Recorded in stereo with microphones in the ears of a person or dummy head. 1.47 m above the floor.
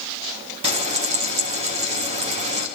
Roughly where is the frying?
Right.